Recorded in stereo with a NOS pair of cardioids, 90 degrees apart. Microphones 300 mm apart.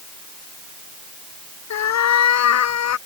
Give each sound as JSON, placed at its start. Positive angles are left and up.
{"t": 1.7, "sound": "a cat meowing", "azimuth_deg": 65}